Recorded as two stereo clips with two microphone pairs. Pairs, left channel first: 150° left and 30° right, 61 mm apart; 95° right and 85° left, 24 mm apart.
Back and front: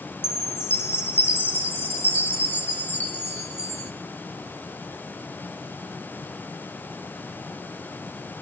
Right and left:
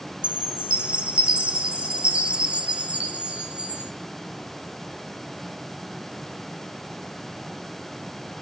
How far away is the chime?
About 1.1 m.